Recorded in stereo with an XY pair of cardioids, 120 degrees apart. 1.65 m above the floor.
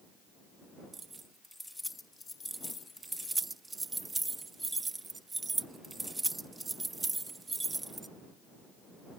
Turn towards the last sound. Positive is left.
turn(degrees=-20)